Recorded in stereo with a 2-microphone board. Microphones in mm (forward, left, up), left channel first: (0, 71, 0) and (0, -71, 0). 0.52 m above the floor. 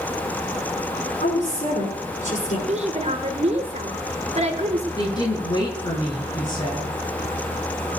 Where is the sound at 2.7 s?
45° right (ahead or behind), 2 m.